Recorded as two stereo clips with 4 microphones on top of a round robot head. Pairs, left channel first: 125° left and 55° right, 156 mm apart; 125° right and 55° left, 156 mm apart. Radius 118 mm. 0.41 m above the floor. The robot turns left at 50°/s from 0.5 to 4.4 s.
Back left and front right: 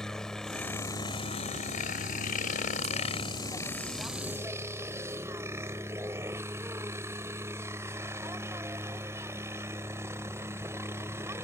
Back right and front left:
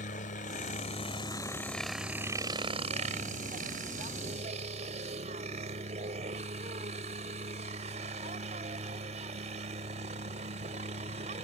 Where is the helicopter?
145° right; by 11.4 s 20° left.